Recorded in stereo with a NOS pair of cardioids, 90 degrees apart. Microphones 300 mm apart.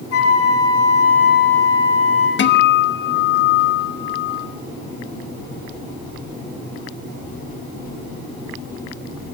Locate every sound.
0.1 s a flute: 55° left, 6 m
2.4 s a guitar: 40° left, 1.0 m